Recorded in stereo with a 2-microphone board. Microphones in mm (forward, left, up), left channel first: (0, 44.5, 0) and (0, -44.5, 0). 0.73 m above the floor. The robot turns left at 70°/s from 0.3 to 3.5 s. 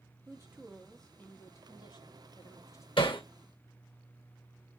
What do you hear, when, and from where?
0.3 s a woman speaking: 140° right, 1.7 m; by 2.9 s 40° left, 1.7 m
3.0 s hammering: 75° left (ahead or behind), 2.5 m; by 3.2 s 65° left (ahead or behind), 2.5 m